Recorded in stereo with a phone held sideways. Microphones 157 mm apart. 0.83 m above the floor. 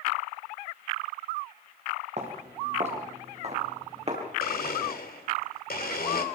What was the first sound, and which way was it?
Footsteps, 50° right (ahead or behind).